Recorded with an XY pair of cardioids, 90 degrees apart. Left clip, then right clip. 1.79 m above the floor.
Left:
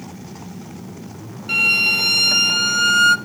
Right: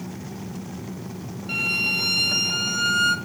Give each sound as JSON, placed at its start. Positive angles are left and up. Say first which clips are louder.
{"t": 1.5, "sound": "a violin", "louder": "left 7 dB", "azimuth_deg": 50, "distance_m": 0.7}